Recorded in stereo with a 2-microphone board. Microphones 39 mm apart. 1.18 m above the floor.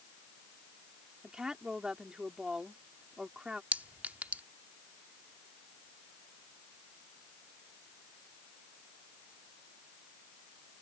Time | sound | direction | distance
1.2 | a woman speaking | 20° right (ahead or behind) | ?
3.7 | a clink | 45° right (ahead or behind) | ?